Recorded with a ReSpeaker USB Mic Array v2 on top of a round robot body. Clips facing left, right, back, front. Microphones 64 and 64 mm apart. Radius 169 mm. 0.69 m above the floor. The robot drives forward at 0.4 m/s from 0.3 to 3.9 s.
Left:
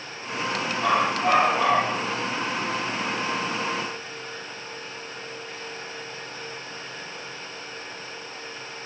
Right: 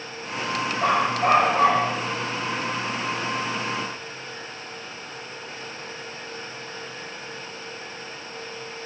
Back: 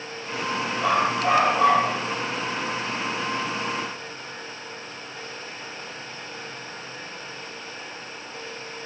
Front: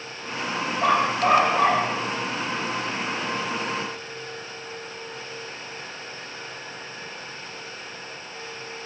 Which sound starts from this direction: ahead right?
A dog barking, at 0.8 s.